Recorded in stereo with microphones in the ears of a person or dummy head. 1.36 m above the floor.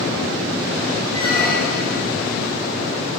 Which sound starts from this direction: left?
A squeak, at 1.1 s.